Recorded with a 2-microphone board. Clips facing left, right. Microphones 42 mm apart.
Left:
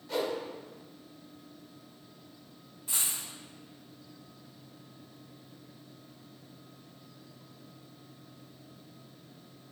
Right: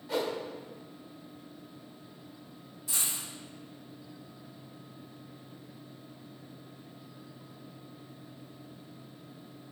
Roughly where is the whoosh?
Centre.